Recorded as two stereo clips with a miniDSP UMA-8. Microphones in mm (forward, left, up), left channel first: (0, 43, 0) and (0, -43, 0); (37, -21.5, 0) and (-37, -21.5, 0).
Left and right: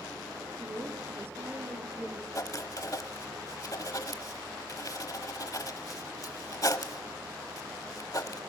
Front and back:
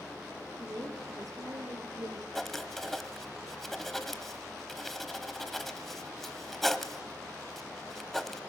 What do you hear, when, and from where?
0.6 s a woman speaking: 140° right, 4.5 m; by 2.2 s 160° right, 5 m
2.4 s writing: 85° left, 1.0 m